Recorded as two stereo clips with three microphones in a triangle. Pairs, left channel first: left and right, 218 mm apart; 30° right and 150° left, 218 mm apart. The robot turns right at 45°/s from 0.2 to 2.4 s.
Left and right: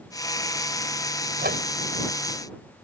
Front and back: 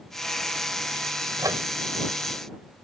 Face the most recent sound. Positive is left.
turn(degrees=-95)